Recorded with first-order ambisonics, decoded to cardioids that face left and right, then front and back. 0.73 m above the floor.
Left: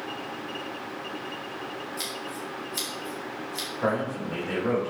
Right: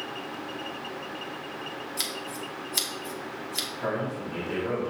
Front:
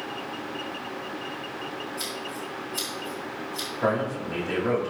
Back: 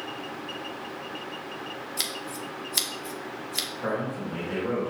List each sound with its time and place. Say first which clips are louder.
2.0 s scissors: right 3 dB, back 1 dB; 155° right, 1.2 m
3.8 s a man speaking: left 7 dB, front 4 dB; 40° left, 2.5 m